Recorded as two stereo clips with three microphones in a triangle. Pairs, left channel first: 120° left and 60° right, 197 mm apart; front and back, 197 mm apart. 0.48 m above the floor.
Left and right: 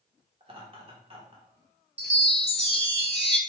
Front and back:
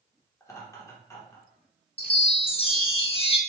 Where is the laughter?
60° right, 1.3 m.